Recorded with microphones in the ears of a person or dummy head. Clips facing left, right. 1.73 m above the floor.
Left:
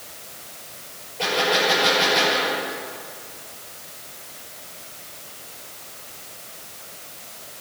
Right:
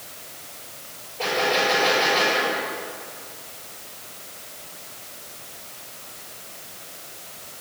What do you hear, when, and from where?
1.2 s a gunshot: 10° left (ahead or behind), 6 m